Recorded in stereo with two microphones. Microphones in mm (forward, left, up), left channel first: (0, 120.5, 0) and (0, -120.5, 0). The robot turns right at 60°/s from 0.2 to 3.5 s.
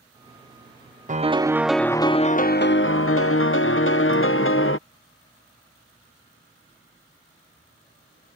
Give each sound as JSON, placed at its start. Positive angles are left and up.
{"t": 1.1, "sound": "a piano", "azimuth_deg": -40}